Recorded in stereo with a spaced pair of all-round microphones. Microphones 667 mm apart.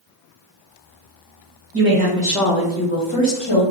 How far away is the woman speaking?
About 1.1 m.